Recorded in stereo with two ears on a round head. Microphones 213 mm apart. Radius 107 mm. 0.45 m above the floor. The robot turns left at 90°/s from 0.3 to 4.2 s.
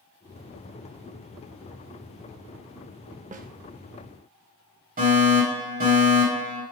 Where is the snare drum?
30° right (ahead or behind), 0.6 m; by 3.5 s 40° right (ahead or behind), 0.6 m.